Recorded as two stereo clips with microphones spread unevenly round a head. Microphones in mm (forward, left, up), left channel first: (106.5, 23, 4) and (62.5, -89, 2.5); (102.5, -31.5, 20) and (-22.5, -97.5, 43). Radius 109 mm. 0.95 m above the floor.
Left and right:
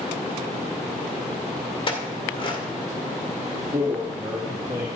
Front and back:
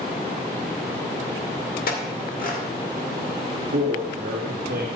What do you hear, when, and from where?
1.9 s a clink: 25° left, 2.5 m
3.7 s a man speaking: 170° left, 1.3 m